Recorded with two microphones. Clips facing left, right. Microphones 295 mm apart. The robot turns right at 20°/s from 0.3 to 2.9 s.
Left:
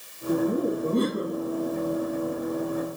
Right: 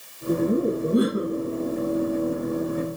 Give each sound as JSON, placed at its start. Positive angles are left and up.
{"t": 0.3, "sound": "laughter", "side_deg": -20, "distance_m": 2.0}